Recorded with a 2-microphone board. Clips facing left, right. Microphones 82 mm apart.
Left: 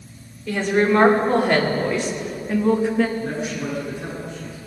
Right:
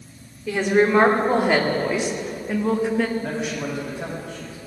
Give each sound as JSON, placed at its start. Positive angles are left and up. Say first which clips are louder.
{"t": 0.5, "sound": "a woman speaking", "louder": "even", "side_deg": -10, "distance_m": 2.5}
{"t": 3.2, "sound": "a man speaking", "louder": "left 1 dB", "side_deg": -75, "distance_m": 4.5}